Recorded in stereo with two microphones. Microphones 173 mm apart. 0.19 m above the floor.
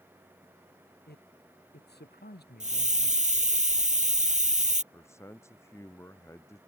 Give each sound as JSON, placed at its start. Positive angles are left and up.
{"t": 1.1, "sound": "a man speaking", "side_deg": 80}
{"t": 2.6, "sound": "a hiss", "side_deg": -45}
{"t": 4.9, "sound": "a man speaking", "side_deg": 15}